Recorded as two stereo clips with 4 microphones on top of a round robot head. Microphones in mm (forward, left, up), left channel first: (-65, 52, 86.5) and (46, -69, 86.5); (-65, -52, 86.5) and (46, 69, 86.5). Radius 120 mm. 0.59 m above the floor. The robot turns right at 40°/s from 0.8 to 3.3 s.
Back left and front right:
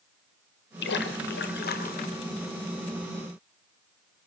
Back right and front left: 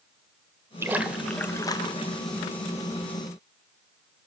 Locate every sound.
0.8 s a splash: 125° left, 1.3 m; by 2.2 s straight behind, 1.3 m